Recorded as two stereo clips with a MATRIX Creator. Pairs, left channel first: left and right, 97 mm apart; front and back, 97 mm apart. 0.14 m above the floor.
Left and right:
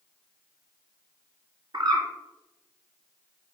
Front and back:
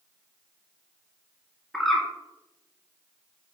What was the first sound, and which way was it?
A bird, 85° right.